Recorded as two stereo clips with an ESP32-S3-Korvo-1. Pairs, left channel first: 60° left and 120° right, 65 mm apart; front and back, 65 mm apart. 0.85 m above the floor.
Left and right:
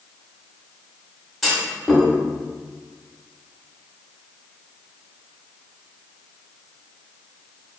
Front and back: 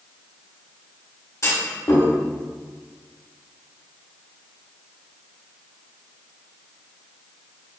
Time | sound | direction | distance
1.4 | a clunk | 30° right | 1.3 m